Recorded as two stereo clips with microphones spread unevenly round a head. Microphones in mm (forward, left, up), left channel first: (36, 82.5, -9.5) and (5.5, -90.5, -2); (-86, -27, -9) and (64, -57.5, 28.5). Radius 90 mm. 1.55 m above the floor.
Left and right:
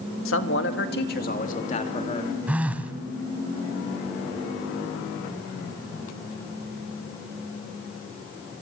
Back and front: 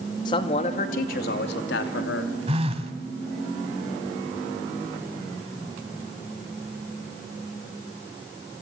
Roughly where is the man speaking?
Left.